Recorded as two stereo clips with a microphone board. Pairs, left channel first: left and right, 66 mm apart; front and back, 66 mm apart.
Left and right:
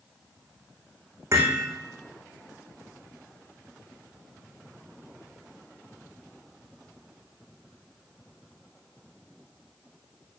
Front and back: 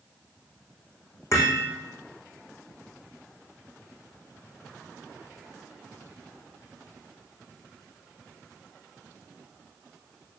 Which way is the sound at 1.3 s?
40° right.